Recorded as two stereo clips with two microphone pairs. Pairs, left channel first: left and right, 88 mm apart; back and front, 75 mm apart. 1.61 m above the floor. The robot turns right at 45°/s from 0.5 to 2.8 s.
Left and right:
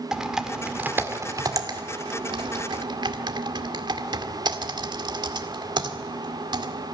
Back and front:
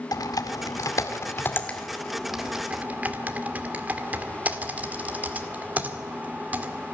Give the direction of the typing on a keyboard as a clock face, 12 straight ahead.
6 o'clock.